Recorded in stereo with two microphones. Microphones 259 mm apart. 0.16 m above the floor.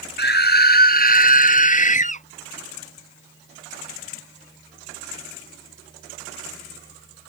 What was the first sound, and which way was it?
A scream, 40° left (ahead or behind).